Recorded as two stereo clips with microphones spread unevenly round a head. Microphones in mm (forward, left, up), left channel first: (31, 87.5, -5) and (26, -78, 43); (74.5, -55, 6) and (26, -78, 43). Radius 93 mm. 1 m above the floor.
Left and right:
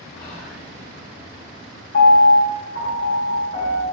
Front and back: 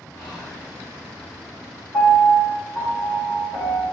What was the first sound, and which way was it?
Whispering, 50° left.